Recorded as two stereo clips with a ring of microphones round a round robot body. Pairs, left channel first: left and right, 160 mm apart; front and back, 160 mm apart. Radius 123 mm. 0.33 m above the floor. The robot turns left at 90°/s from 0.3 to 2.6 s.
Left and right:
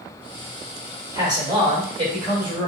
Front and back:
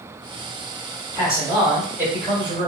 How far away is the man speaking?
About 1.4 m.